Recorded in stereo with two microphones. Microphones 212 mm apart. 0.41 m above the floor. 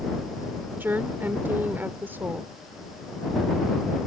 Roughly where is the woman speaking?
Centre.